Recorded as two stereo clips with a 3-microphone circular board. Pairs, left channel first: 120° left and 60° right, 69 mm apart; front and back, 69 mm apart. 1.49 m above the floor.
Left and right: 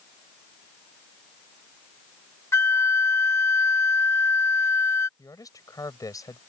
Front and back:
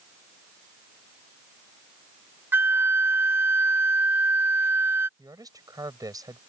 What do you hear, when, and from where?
2.5 s a flute: 140° left
5.2 s a man speaking: 150° left